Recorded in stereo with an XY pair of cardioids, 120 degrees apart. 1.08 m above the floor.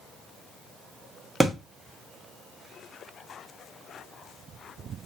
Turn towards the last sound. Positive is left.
turn(degrees=-5)